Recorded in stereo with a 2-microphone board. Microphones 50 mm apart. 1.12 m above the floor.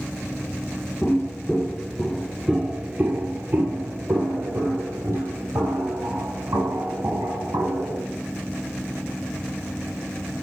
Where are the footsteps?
40° left (ahead or behind), 1.4 m; by 8.0 s 75° right (ahead or behind), 4.5 m.